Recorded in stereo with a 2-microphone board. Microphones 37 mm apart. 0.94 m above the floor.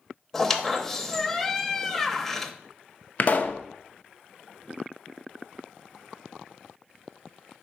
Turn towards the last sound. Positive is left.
turn(degrees=45)  # may be behind; listen again after turning